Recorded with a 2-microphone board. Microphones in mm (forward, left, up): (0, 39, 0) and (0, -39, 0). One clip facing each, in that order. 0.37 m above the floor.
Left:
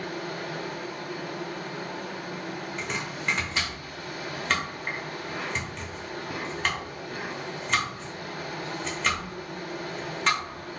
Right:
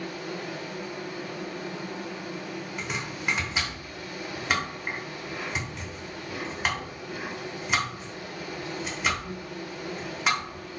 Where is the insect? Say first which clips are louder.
Left 1 dB; 60° left (ahead or behind), 1.0 m.